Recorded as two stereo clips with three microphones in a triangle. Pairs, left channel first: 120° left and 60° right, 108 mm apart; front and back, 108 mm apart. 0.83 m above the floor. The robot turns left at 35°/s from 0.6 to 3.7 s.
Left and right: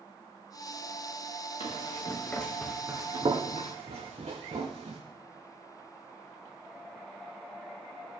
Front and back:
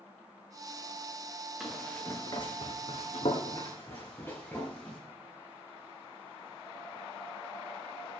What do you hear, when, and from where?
1.6 s running footsteps: 95° left, 2.5 m; by 5.0 s 80° right, 3.5 m